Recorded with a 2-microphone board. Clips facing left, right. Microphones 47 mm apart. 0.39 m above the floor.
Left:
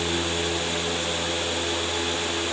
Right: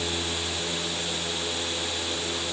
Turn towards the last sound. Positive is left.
No sound to turn to.